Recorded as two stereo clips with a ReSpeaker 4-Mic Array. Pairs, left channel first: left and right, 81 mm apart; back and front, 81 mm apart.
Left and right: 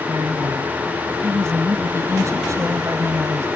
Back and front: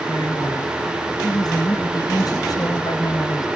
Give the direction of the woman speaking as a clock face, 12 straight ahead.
5 o'clock.